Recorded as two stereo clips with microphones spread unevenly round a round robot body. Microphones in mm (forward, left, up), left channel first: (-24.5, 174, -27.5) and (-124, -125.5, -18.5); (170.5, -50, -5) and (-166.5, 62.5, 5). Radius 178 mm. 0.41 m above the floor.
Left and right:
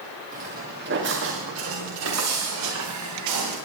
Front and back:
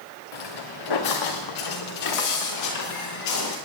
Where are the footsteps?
40° right, 2.5 m; by 3.5 s 65° right, 4.5 m.